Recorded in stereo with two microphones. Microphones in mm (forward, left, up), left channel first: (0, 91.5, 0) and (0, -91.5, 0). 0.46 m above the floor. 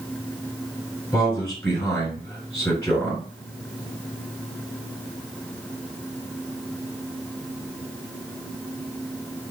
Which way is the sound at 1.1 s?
5° left (ahead or behind).